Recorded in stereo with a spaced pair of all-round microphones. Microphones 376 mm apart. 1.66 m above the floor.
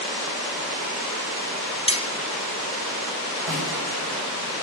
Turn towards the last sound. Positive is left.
turn(degrees=60)  # may be behind; listen again after turning